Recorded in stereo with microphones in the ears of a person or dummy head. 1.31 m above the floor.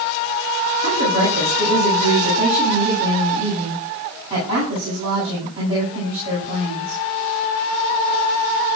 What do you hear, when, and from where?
0.8 s a woman speaking: 35° right (ahead or behind), 10 m